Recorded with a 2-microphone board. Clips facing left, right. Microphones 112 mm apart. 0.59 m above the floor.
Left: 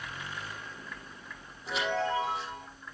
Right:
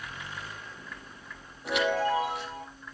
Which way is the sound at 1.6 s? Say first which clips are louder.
Right 4 dB; 85° right.